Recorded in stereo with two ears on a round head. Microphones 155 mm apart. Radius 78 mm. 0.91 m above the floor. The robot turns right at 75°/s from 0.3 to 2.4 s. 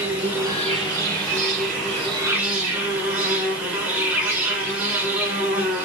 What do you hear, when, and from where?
0.0 s an insect: 170° right, 1.2 m; by 5.8 s 15° right, 1.2 m